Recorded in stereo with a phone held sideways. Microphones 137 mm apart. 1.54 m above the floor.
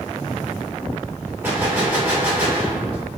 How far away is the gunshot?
About 2 m.